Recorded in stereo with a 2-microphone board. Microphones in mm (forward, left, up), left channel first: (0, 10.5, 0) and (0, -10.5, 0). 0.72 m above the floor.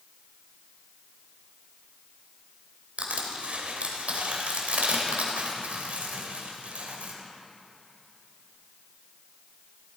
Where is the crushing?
85° right, 2.0 m.